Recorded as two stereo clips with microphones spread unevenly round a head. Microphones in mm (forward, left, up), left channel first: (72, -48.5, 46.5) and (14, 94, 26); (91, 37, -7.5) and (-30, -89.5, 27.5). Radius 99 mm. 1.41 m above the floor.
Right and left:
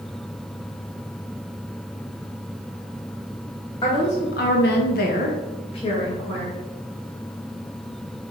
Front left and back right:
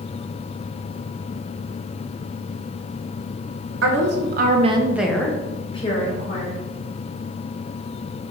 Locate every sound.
3.8 s a woman speaking: 130° right, 1.2 m; by 6.6 s 5° right, 2 m